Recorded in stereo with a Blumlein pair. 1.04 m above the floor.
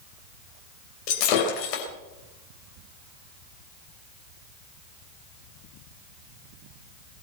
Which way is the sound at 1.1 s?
45° left.